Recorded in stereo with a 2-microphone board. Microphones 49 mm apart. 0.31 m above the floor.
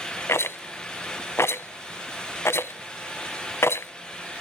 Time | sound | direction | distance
0.3 | a rattle | 65° left (ahead or behind) | 0.5 m